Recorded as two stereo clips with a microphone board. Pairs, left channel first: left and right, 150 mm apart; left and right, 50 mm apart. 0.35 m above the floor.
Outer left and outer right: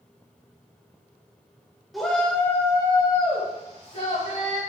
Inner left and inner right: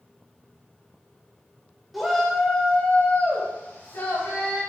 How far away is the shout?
About 0.8 m.